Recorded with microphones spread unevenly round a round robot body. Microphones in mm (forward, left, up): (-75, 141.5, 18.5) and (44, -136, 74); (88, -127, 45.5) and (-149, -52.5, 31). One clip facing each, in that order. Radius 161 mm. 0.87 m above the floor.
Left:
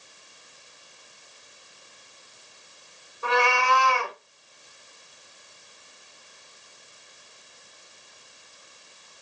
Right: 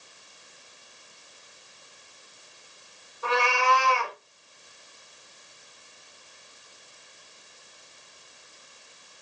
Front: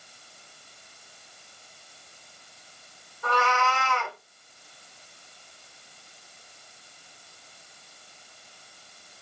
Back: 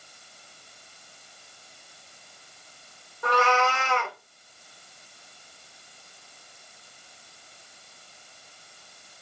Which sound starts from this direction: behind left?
A cat meowing, at 3.2 s.